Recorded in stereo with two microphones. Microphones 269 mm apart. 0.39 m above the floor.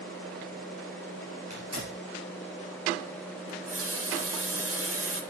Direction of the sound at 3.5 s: 55° right (ahead or behind).